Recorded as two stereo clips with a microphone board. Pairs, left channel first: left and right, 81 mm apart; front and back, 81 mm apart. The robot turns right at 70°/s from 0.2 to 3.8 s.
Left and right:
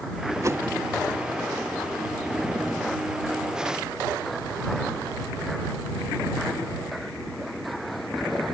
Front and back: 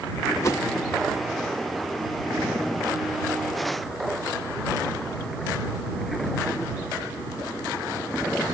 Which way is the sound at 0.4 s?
45° right.